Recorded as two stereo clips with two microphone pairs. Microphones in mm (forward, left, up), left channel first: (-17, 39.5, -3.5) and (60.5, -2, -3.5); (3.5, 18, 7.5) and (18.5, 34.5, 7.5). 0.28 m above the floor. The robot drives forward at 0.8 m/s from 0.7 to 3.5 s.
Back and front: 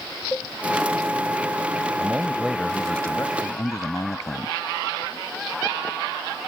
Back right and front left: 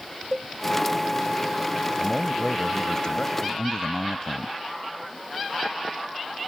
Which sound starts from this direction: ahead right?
A man speaking, at 2.0 s.